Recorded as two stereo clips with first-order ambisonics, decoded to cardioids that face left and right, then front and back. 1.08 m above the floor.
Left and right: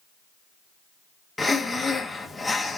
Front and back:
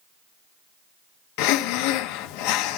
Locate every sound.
1.4 s breathing: 5° left, 0.7 m